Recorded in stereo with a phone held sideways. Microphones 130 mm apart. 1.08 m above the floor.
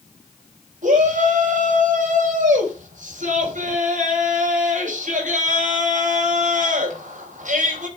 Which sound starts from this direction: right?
A shout, at 0.8 s.